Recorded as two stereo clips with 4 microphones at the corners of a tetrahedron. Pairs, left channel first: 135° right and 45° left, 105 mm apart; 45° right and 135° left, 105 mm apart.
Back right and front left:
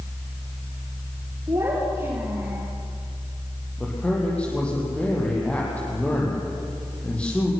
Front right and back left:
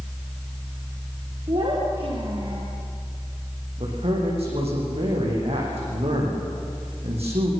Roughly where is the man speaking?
Behind left.